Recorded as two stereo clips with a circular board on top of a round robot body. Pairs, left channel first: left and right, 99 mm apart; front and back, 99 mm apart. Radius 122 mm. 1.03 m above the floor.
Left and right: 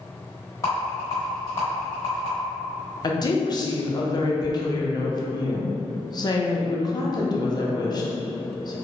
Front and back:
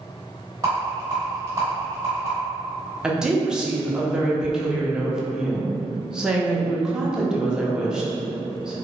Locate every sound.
0.6 s a rattle: 140° left, 0.8 m
3.0 s a woman speaking: 100° left, 0.8 m